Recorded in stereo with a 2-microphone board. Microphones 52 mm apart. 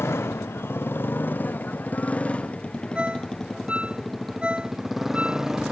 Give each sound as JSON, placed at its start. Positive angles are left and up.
{"t": 0.0, "sound": "a motorcycle", "side_deg": 55}
{"t": 3.0, "sound": "a ringtone", "side_deg": -20}